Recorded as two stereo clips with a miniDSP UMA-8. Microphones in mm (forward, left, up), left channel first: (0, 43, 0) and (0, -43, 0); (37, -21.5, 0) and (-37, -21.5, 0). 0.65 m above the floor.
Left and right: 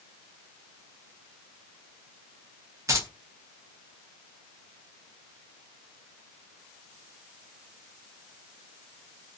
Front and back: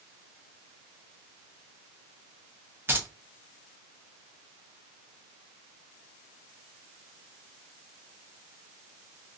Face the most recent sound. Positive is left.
turn(degrees=-130)